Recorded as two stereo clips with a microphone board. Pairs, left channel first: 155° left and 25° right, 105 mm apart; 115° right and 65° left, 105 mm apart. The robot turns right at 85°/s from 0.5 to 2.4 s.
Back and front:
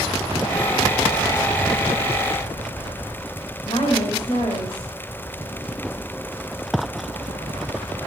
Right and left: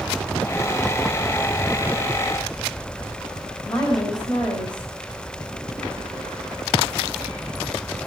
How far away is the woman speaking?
About 2.5 m.